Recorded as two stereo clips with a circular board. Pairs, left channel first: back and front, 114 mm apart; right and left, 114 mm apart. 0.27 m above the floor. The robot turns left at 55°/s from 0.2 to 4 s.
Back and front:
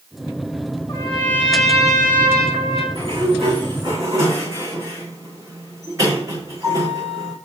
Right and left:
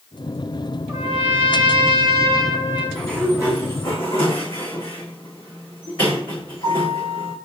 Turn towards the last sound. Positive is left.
turn(degrees=-60)